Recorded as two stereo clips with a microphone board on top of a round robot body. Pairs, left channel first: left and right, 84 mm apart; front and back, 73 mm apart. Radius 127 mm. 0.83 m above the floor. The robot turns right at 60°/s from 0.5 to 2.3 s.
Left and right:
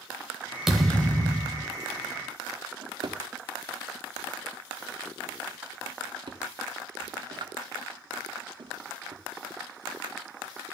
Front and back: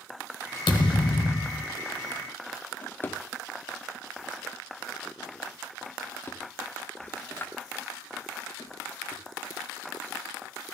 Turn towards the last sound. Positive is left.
turn(degrees=-60)